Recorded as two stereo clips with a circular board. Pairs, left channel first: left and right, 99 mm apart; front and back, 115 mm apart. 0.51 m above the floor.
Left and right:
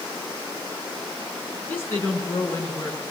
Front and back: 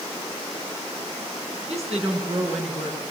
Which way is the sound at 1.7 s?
160° left.